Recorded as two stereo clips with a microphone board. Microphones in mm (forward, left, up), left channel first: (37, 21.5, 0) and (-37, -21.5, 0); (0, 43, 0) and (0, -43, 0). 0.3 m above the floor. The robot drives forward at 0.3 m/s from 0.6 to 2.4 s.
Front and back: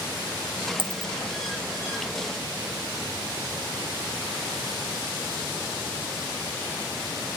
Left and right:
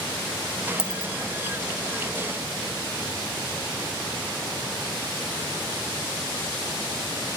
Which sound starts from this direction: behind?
A dropped coin, at 0.8 s.